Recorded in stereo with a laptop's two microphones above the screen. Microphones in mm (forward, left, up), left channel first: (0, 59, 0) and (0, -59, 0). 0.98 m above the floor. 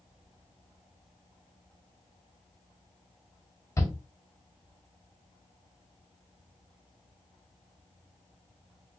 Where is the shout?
25° left (ahead or behind), 1.7 m.